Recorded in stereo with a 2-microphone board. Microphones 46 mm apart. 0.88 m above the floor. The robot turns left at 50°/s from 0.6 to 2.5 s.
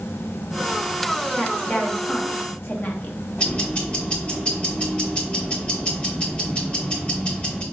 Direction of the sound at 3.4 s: 20° left (ahead or behind).